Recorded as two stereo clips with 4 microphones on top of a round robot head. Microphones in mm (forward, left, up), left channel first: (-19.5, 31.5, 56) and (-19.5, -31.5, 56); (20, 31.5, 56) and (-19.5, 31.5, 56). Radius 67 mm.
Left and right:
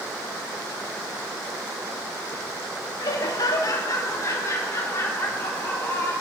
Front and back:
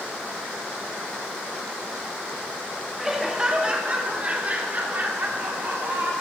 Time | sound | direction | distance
3.0 | laughter | 100° left | 2 m